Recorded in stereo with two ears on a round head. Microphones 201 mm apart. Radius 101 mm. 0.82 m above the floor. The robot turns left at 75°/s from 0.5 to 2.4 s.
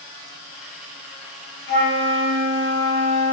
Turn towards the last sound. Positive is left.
turn(degrees=20)